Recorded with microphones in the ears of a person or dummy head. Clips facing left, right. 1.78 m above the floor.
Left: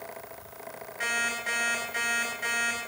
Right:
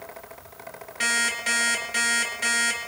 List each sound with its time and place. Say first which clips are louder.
1.0 s an alarm clock: right 3 dB; 50° right (ahead or behind), 4 m